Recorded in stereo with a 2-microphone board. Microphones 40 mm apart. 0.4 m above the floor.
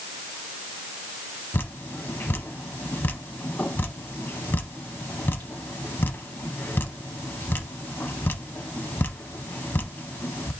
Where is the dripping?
65° left (ahead or behind), 0.6 m.